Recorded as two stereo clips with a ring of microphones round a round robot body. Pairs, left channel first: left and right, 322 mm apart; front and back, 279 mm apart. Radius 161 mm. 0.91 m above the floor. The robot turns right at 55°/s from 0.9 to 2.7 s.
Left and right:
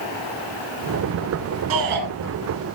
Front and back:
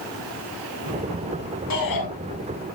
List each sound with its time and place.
1.7 s a shout: 45° right, 7 m; by 2.1 s 25° right, 7 m